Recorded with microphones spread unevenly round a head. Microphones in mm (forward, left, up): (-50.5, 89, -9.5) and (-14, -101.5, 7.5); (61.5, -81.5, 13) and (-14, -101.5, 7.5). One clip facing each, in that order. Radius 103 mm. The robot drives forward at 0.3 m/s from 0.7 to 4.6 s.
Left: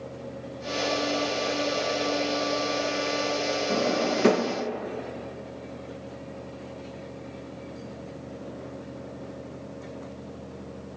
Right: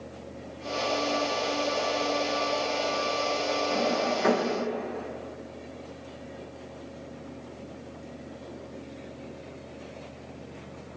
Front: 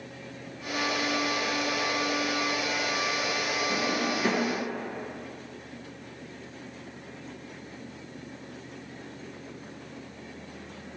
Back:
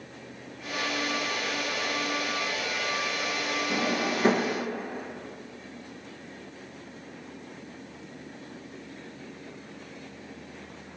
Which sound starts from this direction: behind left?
A drawer, at 3.7 s.